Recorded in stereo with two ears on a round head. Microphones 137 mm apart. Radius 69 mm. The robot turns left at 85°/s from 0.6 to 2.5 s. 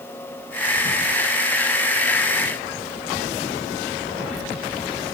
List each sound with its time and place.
Only background noise.